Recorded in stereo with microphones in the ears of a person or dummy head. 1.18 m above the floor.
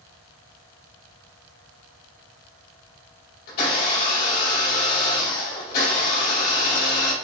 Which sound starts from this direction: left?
A blender, at 3.5 s.